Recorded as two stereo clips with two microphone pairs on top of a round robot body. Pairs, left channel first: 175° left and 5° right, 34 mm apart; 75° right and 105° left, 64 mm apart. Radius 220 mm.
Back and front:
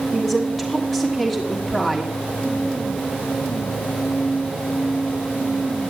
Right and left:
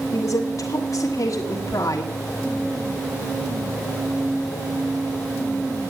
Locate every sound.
0.1 s a woman speaking: 105° right, 1.5 m